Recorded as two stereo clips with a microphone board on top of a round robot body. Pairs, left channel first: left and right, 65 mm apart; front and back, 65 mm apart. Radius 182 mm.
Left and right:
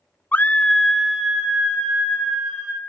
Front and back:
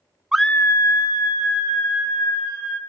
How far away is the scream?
About 0.6 m.